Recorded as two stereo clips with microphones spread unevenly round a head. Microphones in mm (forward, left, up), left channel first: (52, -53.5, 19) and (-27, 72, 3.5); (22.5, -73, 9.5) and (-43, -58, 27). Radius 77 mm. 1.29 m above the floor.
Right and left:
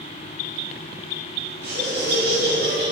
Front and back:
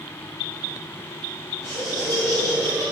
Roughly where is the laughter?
Left.